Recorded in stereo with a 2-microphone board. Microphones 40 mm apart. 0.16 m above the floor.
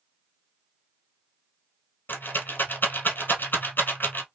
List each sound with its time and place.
2.1 s a rattle: 55° left (ahead or behind), 1.1 m